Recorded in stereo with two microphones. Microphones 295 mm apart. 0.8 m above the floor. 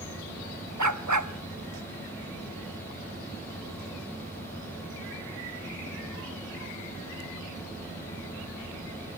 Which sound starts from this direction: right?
A dog barking, at 0.8 s.